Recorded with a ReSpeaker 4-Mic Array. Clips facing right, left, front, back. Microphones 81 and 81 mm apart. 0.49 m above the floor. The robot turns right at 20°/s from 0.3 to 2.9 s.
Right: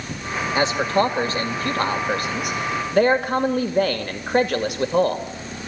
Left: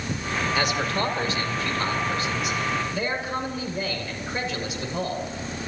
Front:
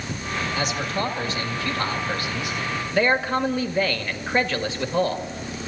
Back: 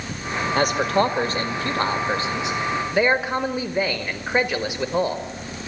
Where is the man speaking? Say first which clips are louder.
Right 8 dB, back 9 dB; 150° right, 1.9 m; by 5.2 s 105° right, 1.9 m.